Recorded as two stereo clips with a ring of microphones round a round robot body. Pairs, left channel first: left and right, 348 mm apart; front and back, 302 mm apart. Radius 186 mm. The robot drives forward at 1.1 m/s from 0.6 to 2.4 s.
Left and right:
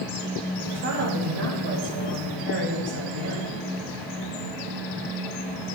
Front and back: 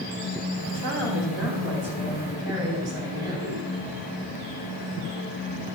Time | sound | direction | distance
0.7 | a woman speaking | 130° right | 3 m